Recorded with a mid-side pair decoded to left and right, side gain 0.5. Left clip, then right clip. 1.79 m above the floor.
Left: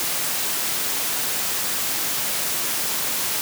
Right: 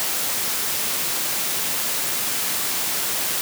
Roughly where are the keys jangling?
No keys jangling in this recording.